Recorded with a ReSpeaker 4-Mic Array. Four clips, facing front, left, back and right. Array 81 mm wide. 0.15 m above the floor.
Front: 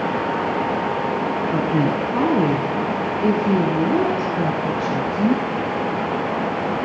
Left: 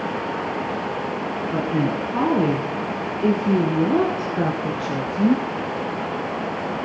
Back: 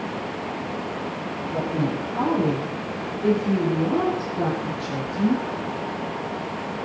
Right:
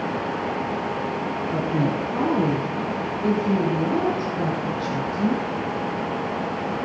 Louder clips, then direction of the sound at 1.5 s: Left 1 dB, front 3 dB; 20° left.